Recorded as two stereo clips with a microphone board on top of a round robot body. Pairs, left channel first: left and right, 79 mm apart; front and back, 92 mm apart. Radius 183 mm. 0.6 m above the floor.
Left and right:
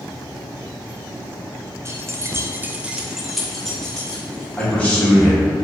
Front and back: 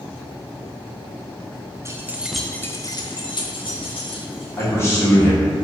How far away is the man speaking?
About 1.2 m.